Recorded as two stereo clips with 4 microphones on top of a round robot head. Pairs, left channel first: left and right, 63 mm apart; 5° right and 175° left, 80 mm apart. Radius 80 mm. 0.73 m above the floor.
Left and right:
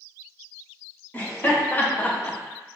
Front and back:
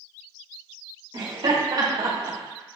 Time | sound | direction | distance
1.1 | laughter | 145° left | 1.5 m